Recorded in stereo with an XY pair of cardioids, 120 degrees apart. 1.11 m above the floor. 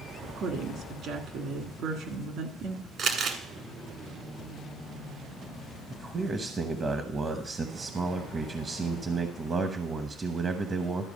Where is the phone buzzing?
No phone buzzing in this recording.